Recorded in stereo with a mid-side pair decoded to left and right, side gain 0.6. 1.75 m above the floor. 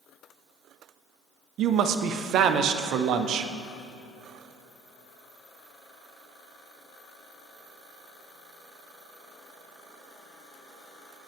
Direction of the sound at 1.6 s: 55° right.